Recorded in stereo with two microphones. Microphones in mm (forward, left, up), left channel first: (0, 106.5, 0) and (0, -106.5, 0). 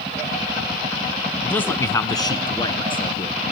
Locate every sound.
1.4 s a man speaking: 5° left (ahead or behind), 1.0 m; by 3.4 s 25° left (ahead or behind), 2.5 m